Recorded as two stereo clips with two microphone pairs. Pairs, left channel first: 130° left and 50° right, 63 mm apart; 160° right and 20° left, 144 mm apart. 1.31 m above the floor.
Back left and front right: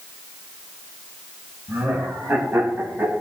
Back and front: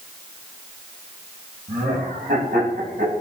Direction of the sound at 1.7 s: 15° left.